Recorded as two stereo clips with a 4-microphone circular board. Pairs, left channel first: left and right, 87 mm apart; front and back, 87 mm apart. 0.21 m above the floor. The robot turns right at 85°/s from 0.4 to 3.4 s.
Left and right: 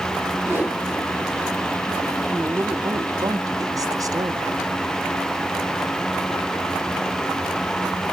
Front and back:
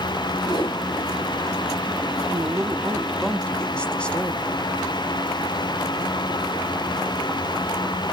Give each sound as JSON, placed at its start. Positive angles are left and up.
{"t": 0.4, "sound": "a whoosh", "azimuth_deg": -40, "distance_m": 9.5}
{"t": 2.3, "sound": "a woman speaking", "azimuth_deg": -165, "distance_m": 1.9}